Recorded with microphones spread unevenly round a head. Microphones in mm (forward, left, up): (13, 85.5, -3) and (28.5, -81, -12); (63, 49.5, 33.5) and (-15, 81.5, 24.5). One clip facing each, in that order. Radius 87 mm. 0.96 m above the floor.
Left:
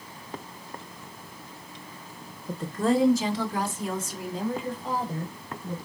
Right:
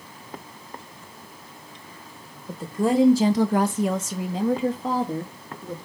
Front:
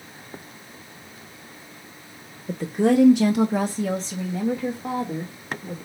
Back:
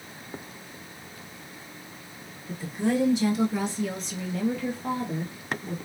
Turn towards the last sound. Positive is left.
turn(degrees=-115)